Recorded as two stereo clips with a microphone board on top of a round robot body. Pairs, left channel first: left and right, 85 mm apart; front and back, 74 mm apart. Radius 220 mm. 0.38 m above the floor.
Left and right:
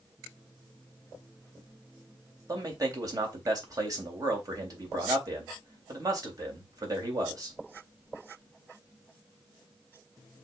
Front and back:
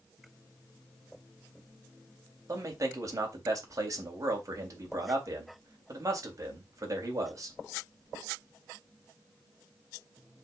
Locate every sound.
2.5 s a man speaking: 135° right, 3.5 m